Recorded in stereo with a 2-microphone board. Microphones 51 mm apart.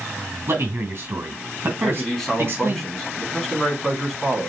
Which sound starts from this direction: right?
A man speaking, at 0.5 s.